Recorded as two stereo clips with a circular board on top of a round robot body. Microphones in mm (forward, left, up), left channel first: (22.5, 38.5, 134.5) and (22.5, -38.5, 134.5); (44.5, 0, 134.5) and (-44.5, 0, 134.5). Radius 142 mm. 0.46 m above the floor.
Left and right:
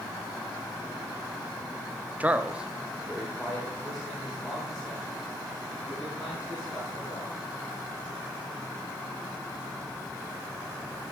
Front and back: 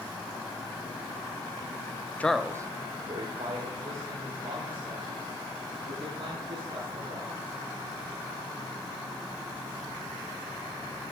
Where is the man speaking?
45° right, 0.8 m; by 7.4 s straight behind, 8 m.